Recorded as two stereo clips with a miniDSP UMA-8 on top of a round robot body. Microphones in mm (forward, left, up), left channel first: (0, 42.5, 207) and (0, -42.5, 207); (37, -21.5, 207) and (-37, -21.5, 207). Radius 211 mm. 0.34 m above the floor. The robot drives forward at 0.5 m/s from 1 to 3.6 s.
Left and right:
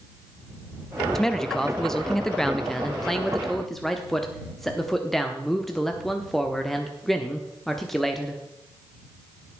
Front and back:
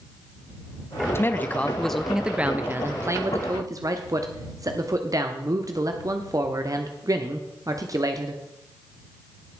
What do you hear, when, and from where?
1.1 s a man speaking: 10° left, 1.0 m; by 8.4 s 175° left, 1.2 m